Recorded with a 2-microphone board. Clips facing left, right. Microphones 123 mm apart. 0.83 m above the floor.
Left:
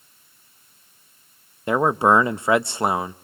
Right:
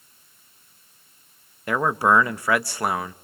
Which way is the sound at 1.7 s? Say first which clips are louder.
Left 3 dB; 25° left (ahead or behind).